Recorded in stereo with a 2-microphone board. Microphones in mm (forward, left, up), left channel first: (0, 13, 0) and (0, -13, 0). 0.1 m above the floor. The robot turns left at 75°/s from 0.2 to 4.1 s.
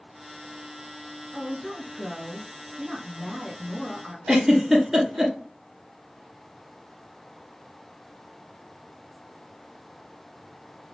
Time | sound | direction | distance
1.3 | a woman speaking | 10° left (ahead or behind) | 1.2 m
4.3 | a giggle | 15° right (ahead or behind) | 1.5 m